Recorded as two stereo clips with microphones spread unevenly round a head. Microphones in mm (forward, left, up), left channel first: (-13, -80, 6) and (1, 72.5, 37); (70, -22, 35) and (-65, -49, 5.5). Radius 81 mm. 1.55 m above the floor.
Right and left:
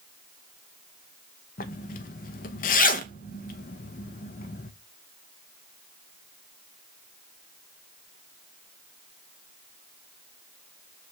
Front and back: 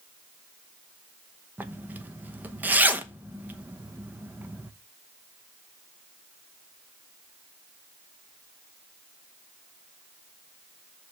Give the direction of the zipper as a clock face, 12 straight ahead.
3 o'clock.